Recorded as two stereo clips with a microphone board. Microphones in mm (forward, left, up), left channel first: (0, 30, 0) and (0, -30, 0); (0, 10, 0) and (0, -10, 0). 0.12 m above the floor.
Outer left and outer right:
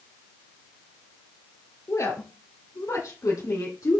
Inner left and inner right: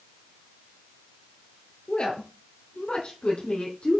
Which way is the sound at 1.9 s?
55° left (ahead or behind).